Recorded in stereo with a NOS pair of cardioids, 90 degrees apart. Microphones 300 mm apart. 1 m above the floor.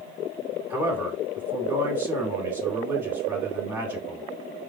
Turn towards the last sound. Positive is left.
turn(degrees=-5)